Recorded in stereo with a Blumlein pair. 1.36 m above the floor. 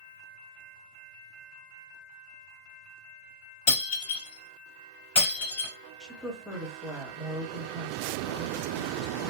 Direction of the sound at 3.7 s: 55° left.